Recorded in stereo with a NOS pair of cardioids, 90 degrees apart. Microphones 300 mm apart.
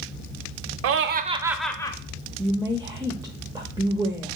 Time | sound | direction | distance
0.8 | laughter | 55° right | 0.5 m
2.4 | a woman speaking | 10° right | 0.5 m